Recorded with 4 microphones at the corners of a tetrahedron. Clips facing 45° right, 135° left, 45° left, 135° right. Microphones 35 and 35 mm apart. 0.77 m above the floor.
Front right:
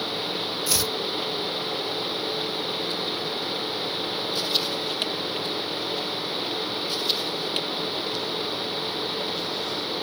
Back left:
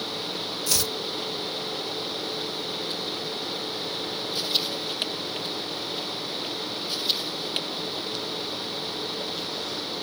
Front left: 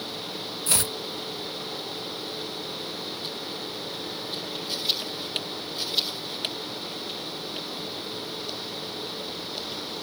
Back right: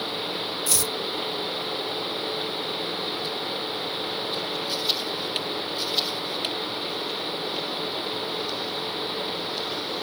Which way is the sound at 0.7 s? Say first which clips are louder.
Front right 1 dB, front left 2 dB; 35° left.